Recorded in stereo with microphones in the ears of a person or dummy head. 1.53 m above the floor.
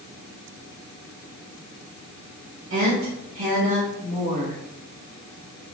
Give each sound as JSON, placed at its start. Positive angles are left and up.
{"t": 2.7, "sound": "a woman speaking", "side_deg": -65, "distance_m": 1.8}